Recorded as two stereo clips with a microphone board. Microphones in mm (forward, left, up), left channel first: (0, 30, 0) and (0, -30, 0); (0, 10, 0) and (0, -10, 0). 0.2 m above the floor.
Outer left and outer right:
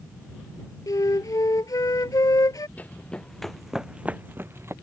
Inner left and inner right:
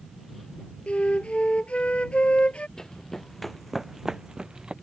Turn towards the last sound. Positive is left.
turn(degrees=-50)  # may be behind; listen again after turning